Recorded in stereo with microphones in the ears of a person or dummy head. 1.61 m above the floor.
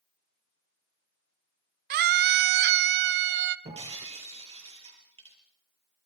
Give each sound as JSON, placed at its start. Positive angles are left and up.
{"t": 1.9, "sound": "a scream", "side_deg": -55, "distance_m": 0.7}
{"t": 3.6, "sound": "breaking glass", "side_deg": -30, "distance_m": 6.0}